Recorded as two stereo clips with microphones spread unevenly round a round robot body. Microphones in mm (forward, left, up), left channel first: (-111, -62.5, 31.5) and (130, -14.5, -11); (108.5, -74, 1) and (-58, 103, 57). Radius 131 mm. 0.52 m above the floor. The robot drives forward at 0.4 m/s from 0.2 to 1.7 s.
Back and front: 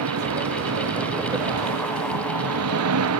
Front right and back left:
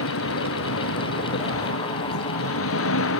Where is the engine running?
15° right.